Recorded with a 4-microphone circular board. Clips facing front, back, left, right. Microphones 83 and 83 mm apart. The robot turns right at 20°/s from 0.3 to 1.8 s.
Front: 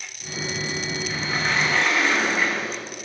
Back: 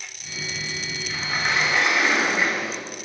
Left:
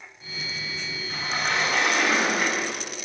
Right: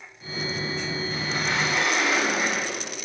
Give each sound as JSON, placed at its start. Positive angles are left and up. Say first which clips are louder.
{"t": 1.1, "sound": "a sliding door", "louder": "back 1 dB, left 3 dB", "azimuth_deg": 90, "distance_m": 8.0}